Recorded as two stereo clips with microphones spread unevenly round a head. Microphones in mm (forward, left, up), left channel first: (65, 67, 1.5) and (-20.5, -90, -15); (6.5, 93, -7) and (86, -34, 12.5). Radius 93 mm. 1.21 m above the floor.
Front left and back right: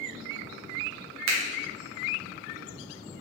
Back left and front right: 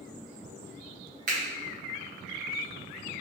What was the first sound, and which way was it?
A finger snap, 110° right.